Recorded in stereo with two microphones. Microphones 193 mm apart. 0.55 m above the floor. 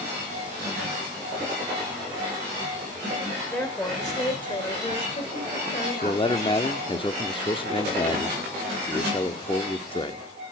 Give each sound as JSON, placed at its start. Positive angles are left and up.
{"t": 3.5, "sound": "a woman speaking", "side_deg": 5, "distance_m": 1.9}
{"t": 6.0, "sound": "a man speaking", "side_deg": 25, "distance_m": 0.9}